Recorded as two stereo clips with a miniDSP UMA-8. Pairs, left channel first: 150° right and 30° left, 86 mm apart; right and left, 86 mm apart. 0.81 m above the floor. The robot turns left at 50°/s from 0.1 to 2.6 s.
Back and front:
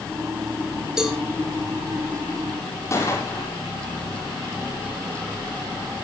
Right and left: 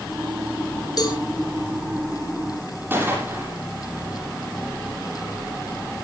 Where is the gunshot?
155° left, 8 m.